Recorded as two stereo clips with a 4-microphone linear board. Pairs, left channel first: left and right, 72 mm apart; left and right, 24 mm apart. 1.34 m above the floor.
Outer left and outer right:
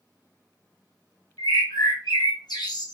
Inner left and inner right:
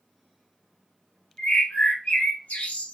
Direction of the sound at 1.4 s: 85° left.